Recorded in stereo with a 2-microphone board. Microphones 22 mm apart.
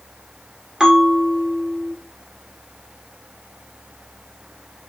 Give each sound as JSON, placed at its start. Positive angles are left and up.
{"t": 0.8, "sound": "a bell", "side_deg": -30, "distance_m": 1.2}